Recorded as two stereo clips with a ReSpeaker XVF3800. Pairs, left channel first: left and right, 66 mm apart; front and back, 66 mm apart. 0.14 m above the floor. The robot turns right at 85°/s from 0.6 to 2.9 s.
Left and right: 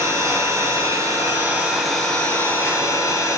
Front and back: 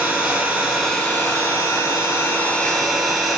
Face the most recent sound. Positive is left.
turn(degrees=85)